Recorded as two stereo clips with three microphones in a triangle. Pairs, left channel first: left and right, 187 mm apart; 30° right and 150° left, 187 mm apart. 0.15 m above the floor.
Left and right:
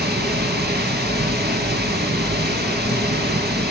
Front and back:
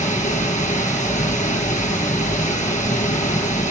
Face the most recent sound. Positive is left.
turn(degrees=-75)